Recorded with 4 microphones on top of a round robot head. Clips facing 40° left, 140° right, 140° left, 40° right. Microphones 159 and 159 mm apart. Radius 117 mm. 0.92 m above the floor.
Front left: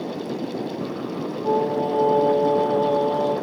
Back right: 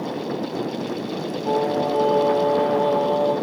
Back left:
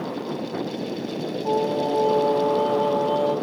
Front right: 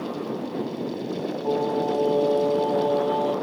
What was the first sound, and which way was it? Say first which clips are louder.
Singing: even, back left 1 dB; 50° left.